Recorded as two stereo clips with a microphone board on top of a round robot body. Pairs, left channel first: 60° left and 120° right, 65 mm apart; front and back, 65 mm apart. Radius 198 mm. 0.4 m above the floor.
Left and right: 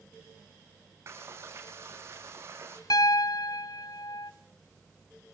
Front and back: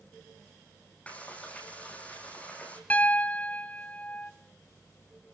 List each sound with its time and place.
1.1 s frying: 70° right, 5.5 m
2.9 s a piano: 70° left, 1.0 m